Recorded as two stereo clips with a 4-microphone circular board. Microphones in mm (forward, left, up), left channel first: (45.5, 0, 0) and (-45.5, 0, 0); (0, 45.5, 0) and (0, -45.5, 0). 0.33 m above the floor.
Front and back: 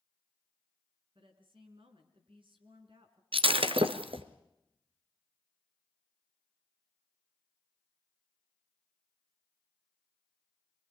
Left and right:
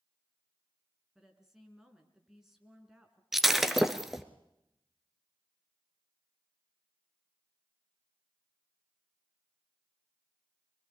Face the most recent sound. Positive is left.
turn(degrees=-175)